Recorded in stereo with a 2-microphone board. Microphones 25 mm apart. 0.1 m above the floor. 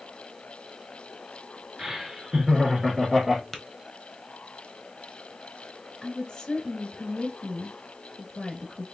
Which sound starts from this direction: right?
Laughter, at 1.8 s.